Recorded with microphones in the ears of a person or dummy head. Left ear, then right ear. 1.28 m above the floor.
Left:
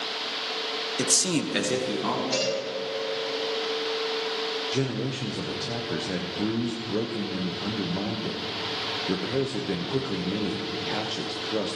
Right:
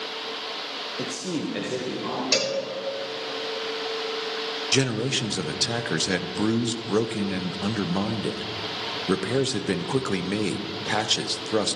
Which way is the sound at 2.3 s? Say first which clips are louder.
Right 5 dB; 50° right (ahead or behind).